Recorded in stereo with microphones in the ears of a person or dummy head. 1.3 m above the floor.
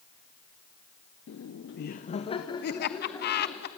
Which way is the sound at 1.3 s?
55° left (ahead or behind).